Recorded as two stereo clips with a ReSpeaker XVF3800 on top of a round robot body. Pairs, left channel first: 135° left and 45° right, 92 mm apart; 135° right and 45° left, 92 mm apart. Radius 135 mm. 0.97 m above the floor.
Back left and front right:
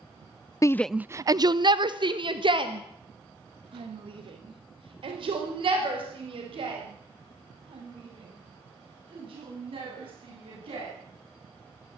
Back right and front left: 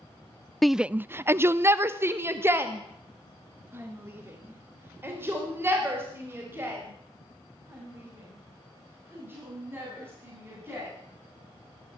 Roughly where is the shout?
Behind left.